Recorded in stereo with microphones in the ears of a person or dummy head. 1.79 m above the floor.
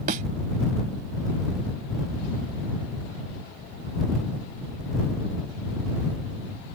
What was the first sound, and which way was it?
A thud, 50° right (ahead or behind).